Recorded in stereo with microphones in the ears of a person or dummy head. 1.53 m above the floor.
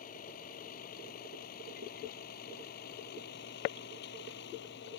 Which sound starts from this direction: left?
A vehicle, at 0.0 s.